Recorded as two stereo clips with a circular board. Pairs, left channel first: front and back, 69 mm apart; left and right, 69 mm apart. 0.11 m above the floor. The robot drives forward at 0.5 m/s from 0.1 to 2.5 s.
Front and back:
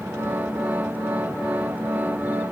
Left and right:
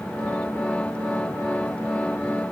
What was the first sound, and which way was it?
Only background noise.